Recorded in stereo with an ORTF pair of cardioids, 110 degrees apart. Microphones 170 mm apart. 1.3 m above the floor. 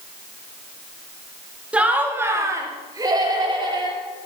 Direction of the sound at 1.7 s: 10° right.